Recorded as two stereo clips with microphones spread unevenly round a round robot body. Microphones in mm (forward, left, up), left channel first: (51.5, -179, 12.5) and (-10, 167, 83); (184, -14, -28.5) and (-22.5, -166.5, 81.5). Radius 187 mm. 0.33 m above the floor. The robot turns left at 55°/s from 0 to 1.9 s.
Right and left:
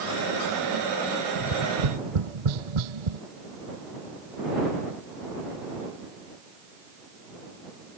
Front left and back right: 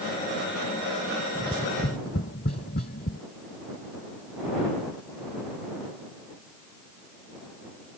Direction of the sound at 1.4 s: 130° left.